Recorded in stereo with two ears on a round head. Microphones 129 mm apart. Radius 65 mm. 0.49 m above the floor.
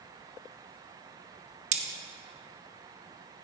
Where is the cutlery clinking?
50° right (ahead or behind), 0.8 m.